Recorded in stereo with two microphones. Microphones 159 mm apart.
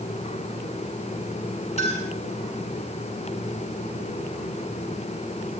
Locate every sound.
1.8 s a clink: 40° left (ahead or behind), 5 m